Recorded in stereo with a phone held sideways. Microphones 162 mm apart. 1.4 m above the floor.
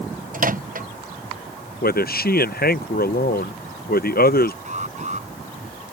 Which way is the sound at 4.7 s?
45° right (ahead or behind).